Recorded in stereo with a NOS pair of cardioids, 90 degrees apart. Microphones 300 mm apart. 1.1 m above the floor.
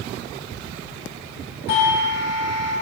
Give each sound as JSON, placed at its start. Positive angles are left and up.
{"t": 1.7, "sound": "a doorbell", "azimuth_deg": 60, "distance_m": 3.0}